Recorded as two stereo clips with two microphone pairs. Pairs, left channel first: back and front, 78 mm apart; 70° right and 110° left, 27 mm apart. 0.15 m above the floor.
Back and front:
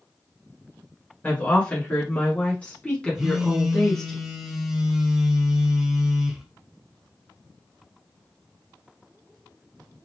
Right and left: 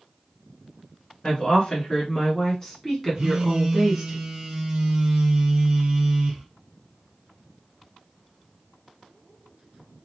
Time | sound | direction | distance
1.2 | a woman speaking | 125° right | 1.7 m
3.1 | a phone buzzing | 80° left | 1.1 m